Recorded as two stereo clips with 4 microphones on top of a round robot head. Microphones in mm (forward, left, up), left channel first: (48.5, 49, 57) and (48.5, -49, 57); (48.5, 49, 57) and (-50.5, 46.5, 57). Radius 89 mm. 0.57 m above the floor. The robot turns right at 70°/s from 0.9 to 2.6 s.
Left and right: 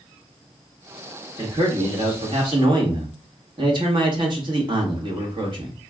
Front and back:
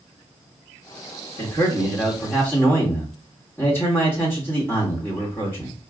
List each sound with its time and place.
1.4 s a man speaking: 150° right, 1.7 m; by 5.8 s 65° right, 1.7 m